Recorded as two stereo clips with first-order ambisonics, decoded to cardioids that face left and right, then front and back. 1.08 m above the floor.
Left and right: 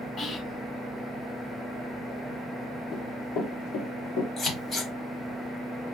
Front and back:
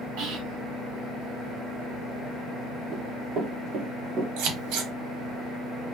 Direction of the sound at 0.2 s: 150° left.